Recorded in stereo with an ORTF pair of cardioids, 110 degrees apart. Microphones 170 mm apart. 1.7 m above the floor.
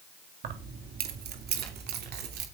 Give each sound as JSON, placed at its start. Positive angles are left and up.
{"t": 0.4, "sound": "keys jangling", "azimuth_deg": -60, "distance_m": 2.5}